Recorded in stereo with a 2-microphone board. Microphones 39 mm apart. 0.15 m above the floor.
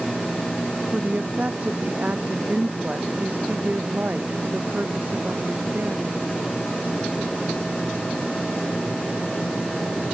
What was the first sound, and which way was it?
A woman speaking, 40° right (ahead or behind).